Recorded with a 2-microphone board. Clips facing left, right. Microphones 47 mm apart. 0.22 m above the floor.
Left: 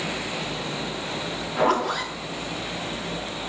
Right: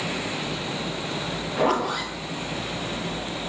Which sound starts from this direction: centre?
A zipper, at 1.6 s.